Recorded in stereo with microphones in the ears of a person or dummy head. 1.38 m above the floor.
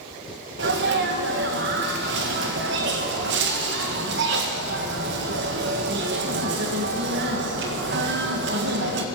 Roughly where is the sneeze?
Right.